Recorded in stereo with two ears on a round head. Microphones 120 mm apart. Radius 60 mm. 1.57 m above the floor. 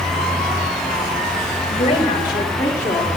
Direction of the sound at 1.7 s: 45° left (ahead or behind).